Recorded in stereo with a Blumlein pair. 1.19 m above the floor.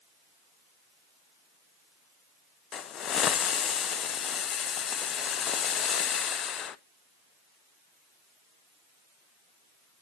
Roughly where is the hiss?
Ahead left.